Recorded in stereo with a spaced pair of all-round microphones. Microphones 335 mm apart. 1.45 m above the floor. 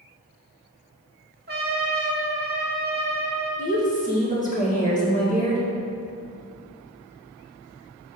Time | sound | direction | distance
1.5 | a trumpet | 30° right (ahead or behind) | 1.5 m
3.6 | a woman speaking | 20° left (ahead or behind) | 2.0 m